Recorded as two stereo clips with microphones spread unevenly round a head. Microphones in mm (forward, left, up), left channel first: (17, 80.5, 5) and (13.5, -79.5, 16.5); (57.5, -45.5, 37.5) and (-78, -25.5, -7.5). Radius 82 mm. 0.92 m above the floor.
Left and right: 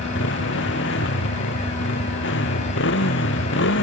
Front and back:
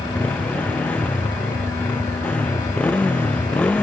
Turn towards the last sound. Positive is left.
turn(degrees=75)